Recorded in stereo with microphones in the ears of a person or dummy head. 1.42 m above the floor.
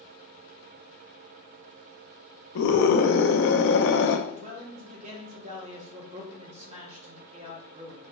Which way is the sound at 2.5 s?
65° left (ahead or behind).